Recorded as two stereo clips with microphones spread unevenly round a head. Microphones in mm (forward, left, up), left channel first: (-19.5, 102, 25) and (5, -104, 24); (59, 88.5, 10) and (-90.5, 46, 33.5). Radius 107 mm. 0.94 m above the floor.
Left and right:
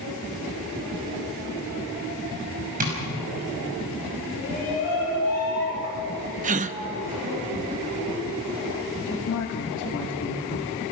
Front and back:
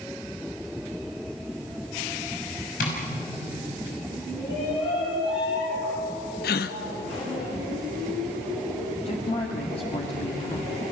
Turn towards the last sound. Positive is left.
turn(degrees=65)